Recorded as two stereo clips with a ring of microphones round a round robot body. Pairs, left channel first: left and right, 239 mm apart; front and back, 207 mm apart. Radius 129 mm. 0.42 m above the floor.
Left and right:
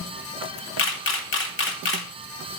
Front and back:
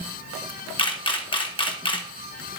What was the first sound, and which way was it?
A camera shutter, 65° left.